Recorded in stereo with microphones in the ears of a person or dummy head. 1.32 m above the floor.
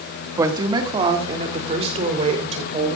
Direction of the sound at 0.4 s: 20° right (ahead or behind).